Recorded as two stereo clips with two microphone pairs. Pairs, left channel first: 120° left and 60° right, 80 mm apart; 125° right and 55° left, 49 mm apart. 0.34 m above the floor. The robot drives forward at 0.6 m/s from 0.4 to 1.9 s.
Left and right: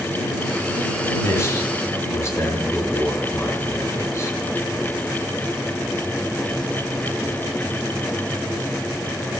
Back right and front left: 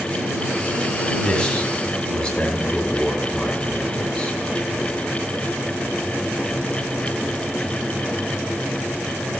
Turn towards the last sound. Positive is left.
turn(degrees=170)